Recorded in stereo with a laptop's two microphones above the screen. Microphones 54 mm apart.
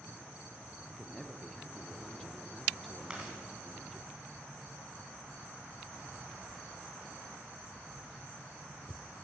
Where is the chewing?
15° right (ahead or behind), 2.5 m.